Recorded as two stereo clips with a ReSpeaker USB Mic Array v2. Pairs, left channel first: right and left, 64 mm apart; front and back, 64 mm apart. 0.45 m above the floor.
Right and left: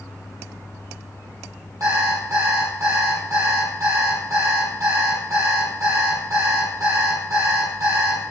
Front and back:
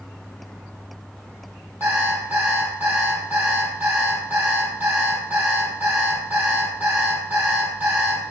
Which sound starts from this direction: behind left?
An alarm clock, at 1.8 s.